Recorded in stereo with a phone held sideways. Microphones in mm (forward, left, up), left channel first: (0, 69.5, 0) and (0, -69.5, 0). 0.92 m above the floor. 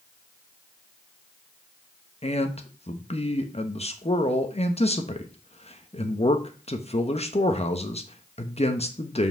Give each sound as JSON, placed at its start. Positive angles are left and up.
{"t": 2.2, "sound": "a man speaking", "side_deg": 50, "distance_m": 1.1}